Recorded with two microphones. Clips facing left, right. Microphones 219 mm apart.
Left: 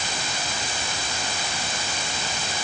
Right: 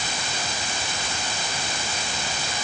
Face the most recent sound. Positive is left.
No sound to turn to.